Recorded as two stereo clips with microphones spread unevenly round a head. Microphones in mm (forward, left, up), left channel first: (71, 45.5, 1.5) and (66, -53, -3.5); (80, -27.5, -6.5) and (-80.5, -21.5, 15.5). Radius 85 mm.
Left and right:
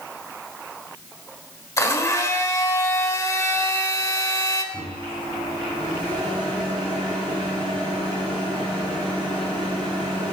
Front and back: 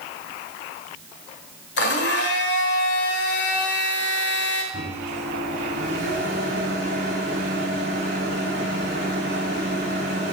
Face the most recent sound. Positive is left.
turn(degrees=-175)